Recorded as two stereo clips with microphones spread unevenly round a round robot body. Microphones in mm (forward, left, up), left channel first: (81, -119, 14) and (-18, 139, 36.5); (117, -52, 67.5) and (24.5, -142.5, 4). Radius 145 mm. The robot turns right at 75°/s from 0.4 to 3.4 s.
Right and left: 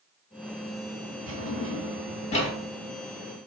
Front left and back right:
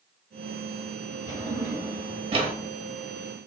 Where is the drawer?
145° left, 1.1 m; by 2.5 s 120° right, 1.1 m.